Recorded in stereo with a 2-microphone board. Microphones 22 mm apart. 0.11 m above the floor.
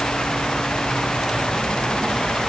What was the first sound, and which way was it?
Only background noise.